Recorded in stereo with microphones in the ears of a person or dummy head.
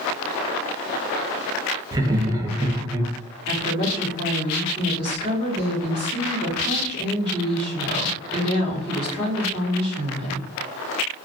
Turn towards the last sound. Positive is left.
turn(degrees=-30)  # may be behind; listen again after turning